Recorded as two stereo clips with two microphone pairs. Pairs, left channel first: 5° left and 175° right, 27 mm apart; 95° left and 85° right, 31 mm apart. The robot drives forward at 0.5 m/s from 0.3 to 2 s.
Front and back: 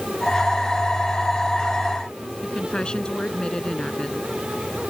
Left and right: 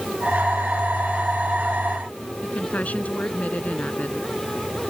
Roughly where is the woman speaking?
Ahead left.